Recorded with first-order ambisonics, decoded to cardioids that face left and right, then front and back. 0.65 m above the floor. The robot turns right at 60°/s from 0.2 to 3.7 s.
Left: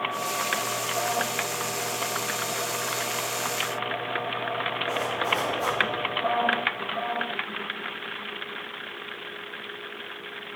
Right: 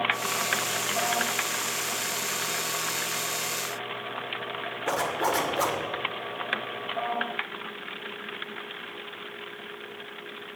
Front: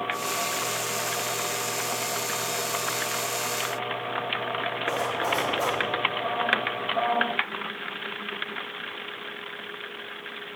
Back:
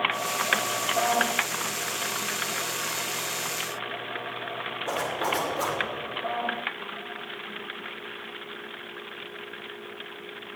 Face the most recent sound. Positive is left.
turn(degrees=-105)